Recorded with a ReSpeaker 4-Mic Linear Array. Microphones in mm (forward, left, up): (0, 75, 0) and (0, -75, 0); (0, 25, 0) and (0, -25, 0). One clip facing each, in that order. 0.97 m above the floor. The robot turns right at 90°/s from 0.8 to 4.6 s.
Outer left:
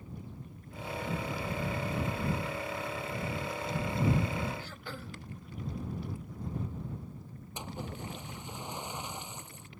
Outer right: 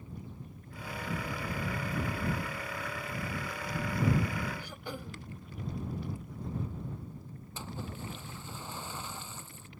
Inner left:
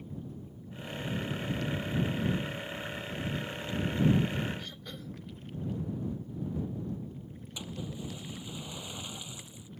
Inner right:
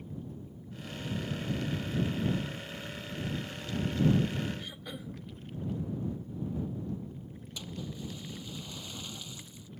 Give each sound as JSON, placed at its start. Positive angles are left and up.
{"t": 4.6, "sound": "throat clearing", "side_deg": -15}
{"t": 7.6, "sound": "a splash", "side_deg": 20}